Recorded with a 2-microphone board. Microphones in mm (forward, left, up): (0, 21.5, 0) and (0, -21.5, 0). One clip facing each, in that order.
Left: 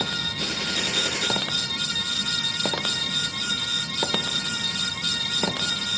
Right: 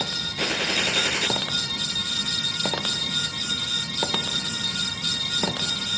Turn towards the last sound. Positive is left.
turn(degrees=-45)  # may be behind; listen again after turning